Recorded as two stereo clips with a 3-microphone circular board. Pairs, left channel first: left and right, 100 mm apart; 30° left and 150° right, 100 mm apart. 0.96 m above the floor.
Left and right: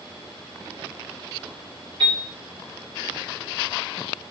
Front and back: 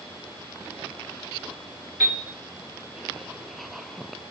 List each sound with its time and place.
2.0 s a piano: 80° right, 1.8 m